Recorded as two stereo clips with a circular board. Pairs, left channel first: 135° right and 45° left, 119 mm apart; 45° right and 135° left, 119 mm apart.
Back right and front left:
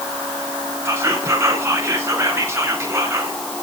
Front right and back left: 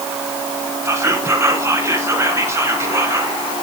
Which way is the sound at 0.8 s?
90° left.